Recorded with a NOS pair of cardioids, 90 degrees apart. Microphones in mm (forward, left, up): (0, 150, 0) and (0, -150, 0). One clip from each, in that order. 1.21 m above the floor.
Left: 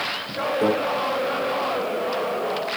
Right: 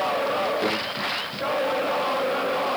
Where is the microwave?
60° left, 3.5 m.